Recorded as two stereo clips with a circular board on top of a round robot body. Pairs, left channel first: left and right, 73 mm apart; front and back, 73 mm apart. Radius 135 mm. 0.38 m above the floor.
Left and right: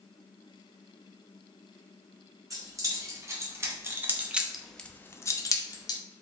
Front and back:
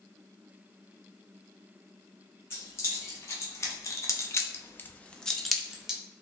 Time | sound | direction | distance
2.5 | keys jangling | 50° right | 1.4 m